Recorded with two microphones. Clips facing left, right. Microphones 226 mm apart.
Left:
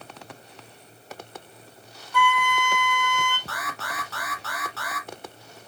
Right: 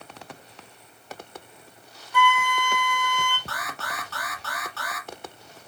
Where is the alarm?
Centre (ahead or behind), 3 m.